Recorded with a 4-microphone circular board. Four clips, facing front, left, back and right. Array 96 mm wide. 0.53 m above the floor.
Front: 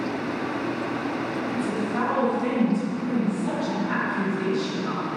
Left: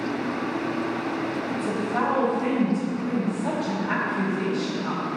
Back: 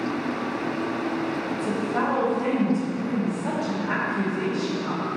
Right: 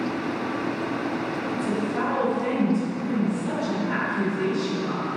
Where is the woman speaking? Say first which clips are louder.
Even, even; 135° left, 2 m.